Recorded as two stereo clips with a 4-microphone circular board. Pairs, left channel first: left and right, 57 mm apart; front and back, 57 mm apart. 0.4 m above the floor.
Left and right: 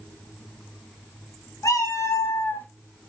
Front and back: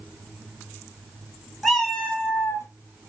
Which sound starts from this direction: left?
A cat meowing, at 1.6 s.